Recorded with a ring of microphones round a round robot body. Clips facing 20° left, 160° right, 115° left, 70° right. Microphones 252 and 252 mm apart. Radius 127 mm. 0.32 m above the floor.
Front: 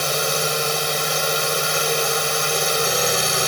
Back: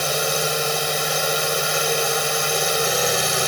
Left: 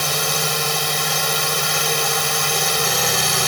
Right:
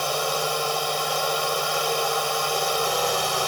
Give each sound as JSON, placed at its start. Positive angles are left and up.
{"t": 0.0, "sound": "a drone", "azimuth_deg": 110}